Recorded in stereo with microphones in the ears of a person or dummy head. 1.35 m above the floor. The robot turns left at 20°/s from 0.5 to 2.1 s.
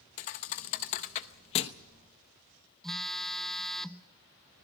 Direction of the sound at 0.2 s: 35° left (ahead or behind).